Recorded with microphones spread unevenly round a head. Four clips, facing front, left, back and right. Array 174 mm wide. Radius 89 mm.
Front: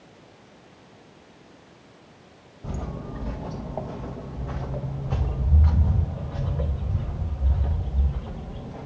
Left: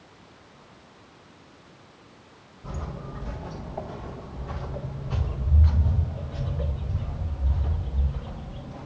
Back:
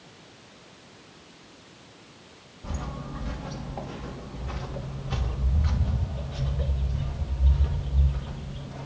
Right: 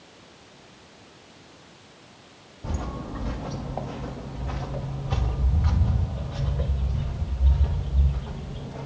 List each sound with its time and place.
2.6 s footsteps: 55° right, 1.7 m; by 8.9 s 25° right, 5 m